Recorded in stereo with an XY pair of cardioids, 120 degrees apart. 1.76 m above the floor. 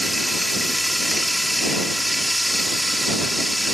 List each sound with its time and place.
0.0 s running water: straight ahead